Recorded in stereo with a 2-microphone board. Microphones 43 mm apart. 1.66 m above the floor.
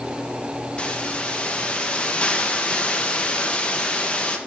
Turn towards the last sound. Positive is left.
turn(degrees=25)  # may be behind; listen again after turning